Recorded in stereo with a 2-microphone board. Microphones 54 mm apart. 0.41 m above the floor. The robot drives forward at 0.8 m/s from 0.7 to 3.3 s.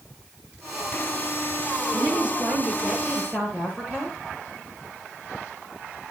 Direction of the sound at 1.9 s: 20° right (ahead or behind).